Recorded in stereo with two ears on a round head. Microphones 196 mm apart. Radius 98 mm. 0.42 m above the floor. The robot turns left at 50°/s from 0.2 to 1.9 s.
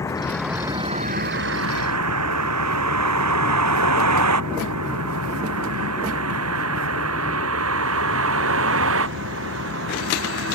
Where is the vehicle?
15° left (ahead or behind); by 10.5 s 60° right (ahead or behind).